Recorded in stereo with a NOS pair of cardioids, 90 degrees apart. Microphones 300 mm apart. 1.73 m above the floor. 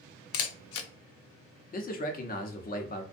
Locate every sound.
0.3 s a camera shutter: 55° left, 0.5 m
1.7 s a man speaking: 30° left, 0.7 m